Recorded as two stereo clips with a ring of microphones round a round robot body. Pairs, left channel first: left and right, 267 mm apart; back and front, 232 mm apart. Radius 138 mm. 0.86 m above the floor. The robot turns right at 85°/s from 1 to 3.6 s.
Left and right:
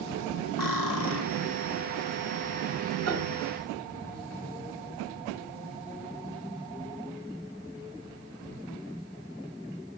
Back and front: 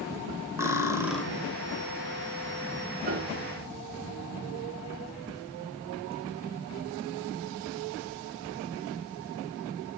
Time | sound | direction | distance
0.6 | cutlery clinking | 80° left | 2 m
3.1 | a piano | 65° right | 2.5 m